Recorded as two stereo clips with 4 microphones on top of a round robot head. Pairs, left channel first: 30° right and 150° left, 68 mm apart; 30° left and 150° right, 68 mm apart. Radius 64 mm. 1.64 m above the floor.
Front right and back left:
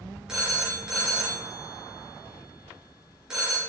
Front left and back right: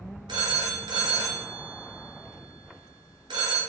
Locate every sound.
0.3 s a phone ringing: 135° right, 0.7 m